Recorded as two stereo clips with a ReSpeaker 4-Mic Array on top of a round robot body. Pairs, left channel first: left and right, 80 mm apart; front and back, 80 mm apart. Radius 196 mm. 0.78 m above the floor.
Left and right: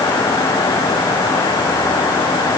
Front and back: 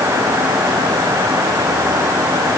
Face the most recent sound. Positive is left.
No sound to turn to.